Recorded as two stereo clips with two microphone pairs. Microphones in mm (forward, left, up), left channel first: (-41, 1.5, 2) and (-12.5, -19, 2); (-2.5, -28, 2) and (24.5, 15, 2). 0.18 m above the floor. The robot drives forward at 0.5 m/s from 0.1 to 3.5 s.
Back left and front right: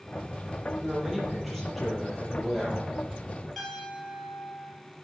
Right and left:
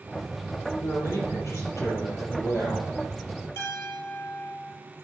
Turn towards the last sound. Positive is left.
turn(degrees=-135)